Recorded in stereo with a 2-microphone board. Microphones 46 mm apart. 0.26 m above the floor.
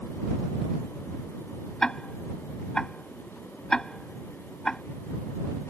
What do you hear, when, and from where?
1.8 s ticking: 15° left (ahead or behind)